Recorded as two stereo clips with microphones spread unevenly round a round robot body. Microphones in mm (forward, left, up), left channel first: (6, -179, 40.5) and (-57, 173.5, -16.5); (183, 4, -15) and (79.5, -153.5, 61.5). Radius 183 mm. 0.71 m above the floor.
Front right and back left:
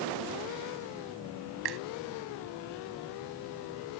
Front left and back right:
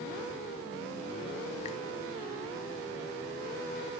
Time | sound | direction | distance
1.6 | a finger snap | 125° left | ?